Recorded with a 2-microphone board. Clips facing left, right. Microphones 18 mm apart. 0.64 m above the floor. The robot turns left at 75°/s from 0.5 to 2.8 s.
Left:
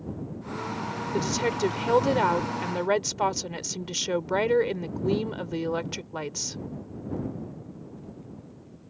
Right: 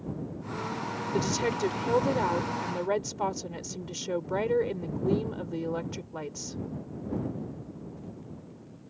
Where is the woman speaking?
175° right; by 6.6 s 65° left.